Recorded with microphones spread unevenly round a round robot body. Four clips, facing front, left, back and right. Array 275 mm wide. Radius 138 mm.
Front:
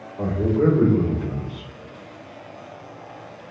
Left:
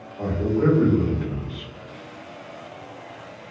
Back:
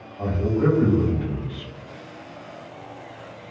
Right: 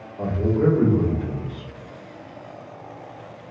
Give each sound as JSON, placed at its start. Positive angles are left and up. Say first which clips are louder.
{"t": 0.2, "sound": "a man speaking", "louder": "right 1 dB, front 2 dB", "azimuth_deg": -15, "distance_m": 1.8}